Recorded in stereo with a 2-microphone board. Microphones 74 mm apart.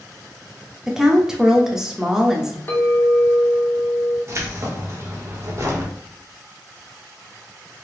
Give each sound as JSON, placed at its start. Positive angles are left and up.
{"t": 0.9, "sound": "a woman speaking", "side_deg": -5, "distance_m": 0.7}
{"t": 2.7, "sound": "a clink", "side_deg": 35, "distance_m": 0.8}
{"t": 4.3, "sound": "keys jangling", "side_deg": -40, "distance_m": 0.9}